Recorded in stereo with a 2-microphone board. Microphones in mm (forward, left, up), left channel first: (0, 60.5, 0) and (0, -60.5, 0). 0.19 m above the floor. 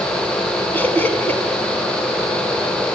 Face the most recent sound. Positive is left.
turn(degrees=15)  # may be behind; listen again after turning